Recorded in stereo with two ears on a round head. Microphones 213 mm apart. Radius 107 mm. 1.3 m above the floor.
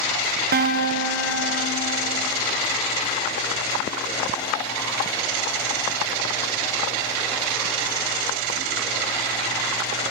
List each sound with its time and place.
0.5 s a guitar: 40° right (ahead or behind), 0.6 m